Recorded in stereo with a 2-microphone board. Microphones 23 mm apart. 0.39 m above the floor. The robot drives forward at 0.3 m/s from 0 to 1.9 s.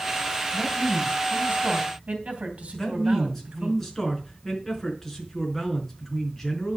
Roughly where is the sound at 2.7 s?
Centre.